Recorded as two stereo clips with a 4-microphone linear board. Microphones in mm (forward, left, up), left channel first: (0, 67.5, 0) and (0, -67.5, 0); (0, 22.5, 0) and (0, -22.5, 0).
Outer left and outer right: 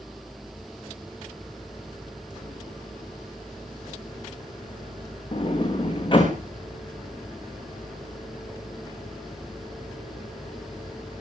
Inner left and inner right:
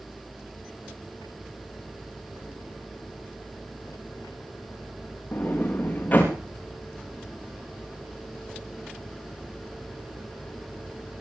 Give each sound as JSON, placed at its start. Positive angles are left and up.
{"t": 5.3, "sound": "a sliding door", "side_deg": 35, "distance_m": 5.5}